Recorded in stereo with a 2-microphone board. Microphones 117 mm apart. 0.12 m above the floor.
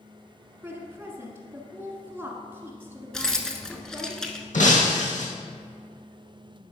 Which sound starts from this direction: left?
Breaking glass, at 4.5 s.